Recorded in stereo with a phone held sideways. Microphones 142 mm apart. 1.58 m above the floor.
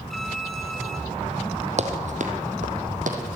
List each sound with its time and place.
0.1 s a violin: centre (ahead or behind), 2.5 m
1.8 s running footsteps: 55° right (ahead or behind), 3 m; by 3.2 s 65° right (ahead or behind), 4 m